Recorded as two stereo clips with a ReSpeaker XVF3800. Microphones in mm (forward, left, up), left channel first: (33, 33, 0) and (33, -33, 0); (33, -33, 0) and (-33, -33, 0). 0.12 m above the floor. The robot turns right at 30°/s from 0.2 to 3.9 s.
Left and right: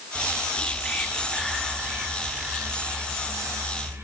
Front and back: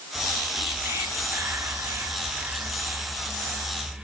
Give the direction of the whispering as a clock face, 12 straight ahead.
7 o'clock.